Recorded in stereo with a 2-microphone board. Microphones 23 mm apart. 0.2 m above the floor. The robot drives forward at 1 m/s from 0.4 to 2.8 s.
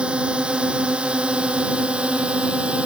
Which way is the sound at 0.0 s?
50° right (ahead or behind).